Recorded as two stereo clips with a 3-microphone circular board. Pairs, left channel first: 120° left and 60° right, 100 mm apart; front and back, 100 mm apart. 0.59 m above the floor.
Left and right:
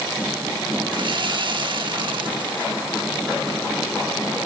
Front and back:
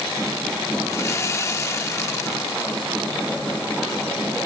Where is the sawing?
55° right.